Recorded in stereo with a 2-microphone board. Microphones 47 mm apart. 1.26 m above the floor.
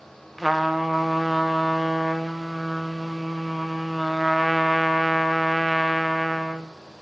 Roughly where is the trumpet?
Centre.